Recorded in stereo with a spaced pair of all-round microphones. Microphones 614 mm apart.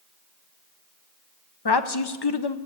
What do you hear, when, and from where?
1.6 s a woman speaking: 40° left (ahead or behind), 0.7 m